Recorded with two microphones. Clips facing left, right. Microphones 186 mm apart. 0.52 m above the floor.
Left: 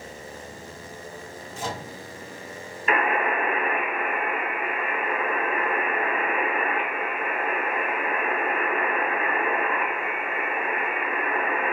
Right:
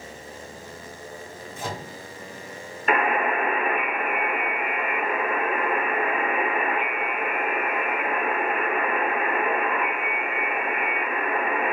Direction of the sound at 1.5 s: 60° right (ahead or behind).